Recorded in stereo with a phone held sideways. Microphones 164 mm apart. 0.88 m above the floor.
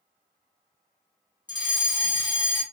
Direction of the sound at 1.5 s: 25° left (ahead or behind).